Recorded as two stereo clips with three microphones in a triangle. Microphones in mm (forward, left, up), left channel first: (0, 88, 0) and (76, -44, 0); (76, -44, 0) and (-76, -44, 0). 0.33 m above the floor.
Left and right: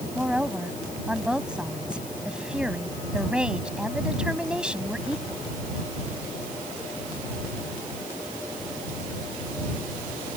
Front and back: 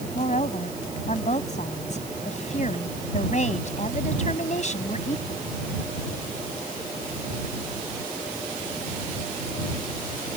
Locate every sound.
0.1 s a woman speaking: 25° left